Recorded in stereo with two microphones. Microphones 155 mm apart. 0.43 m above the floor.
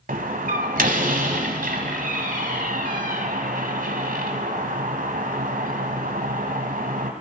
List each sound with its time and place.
0.1 s a door slam: 75° right (ahead or behind), 1.9 m